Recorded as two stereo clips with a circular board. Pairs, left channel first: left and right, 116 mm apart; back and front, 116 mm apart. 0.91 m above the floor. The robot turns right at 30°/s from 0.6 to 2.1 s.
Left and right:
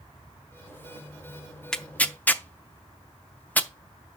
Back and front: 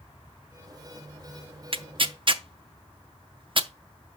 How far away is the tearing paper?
About 0.5 m.